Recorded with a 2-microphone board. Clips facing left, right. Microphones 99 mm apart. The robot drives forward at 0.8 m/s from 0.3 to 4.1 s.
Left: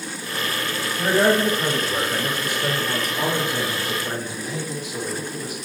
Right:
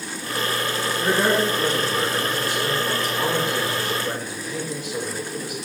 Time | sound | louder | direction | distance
0.9 | a man speaking | left 3 dB | 55° left (ahead or behind) | 2.5 m